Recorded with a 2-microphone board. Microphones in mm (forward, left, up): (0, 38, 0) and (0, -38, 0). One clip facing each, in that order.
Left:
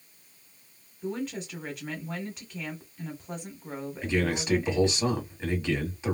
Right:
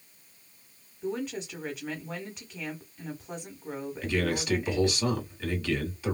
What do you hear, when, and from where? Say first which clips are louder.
1.0 s a woman speaking: even; centre (ahead or behind), 1.2 m
4.0 s a man speaking: left 1 dB; 25° left (ahead or behind), 1.4 m